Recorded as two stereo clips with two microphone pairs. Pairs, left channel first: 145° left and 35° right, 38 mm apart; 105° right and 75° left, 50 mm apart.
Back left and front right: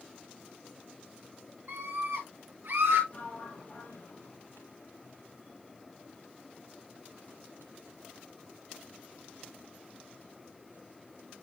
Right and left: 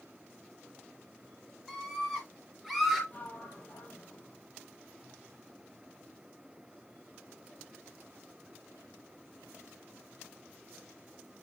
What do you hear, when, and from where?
1.7 s a scream: 20° right, 3 m; by 3.0 s 15° right, 4.5 m
3.1 s a sliding door: 165° right, 2.5 m